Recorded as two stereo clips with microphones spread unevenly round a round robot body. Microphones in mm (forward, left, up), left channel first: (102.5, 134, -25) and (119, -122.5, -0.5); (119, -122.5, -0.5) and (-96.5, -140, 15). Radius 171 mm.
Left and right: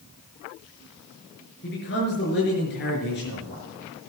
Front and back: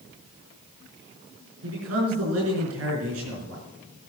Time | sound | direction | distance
1.6 | a man speaking | 155° left | 4.5 m